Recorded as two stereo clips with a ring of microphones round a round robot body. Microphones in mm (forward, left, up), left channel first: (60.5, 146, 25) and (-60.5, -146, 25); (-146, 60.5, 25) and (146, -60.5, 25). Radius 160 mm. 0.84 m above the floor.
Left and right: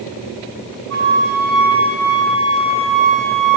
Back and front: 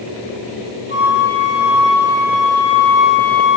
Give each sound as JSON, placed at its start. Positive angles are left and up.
{"t": 0.9, "sound": "a flute", "azimuth_deg": -85, "distance_m": 1.7}